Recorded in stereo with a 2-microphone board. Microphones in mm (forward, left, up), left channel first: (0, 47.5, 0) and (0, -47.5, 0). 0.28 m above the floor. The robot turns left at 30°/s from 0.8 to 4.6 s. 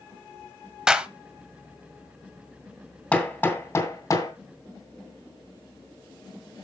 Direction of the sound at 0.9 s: 10° right (ahead or behind).